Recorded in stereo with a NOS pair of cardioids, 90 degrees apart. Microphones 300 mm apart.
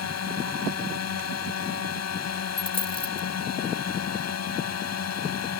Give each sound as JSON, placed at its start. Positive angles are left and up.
{"t": 0.0, "sound": "a drone", "azimuth_deg": 60}
{"t": 2.6, "sound": "a dropped coin", "azimuth_deg": 20}